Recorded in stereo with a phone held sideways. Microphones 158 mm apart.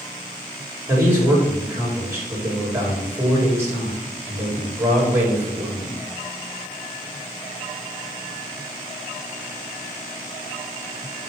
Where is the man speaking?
15° right (ahead or behind), 3 m.